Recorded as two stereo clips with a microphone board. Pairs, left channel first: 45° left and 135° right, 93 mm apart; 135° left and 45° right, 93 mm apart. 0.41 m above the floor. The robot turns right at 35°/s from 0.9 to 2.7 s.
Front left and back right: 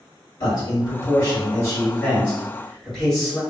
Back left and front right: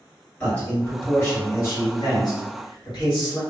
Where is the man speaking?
65° left, 1.7 m; by 3.4 s 130° left, 1.7 m.